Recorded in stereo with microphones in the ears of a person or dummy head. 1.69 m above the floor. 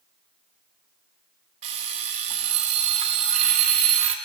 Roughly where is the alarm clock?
Right.